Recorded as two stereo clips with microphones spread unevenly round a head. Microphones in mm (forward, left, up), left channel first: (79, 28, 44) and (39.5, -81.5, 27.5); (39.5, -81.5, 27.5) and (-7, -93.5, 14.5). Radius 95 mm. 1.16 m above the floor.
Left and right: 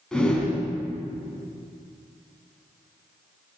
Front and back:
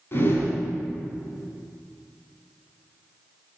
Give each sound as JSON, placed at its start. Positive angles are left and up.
{"t": 0.1, "sound": "a whoosh", "azimuth_deg": -10, "distance_m": 3.0}